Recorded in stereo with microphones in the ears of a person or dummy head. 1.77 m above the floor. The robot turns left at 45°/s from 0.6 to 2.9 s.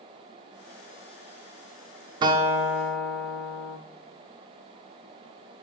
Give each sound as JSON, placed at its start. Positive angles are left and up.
{"t": 2.2, "sound": "a guitar", "azimuth_deg": -150, "distance_m": 0.7}